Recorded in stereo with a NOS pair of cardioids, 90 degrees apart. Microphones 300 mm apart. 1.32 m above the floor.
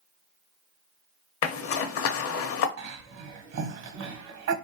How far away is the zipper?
About 0.7 m.